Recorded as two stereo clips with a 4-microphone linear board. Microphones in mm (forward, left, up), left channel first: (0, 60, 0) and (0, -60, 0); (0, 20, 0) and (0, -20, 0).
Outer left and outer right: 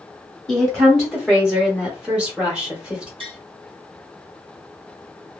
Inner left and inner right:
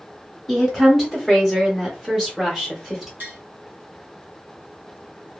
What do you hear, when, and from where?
0.5 s a woman speaking: 5° right (ahead or behind), 1.5 m; by 3.1 s 10° right (ahead or behind), 1.5 m
3.2 s tapping: 45° right (ahead or behind), 2.0 m